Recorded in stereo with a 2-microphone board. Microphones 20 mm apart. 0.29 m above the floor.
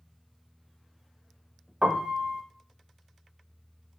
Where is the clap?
I don't hear a clap.